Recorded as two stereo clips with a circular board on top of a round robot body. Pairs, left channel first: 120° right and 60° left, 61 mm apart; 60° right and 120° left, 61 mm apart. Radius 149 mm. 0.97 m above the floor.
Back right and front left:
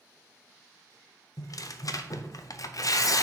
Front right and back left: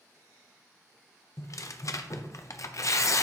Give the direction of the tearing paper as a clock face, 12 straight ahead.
3 o'clock.